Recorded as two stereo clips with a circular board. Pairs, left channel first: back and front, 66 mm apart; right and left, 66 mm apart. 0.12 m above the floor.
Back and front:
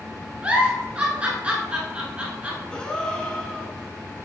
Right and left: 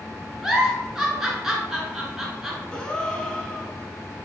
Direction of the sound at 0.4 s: 20° left.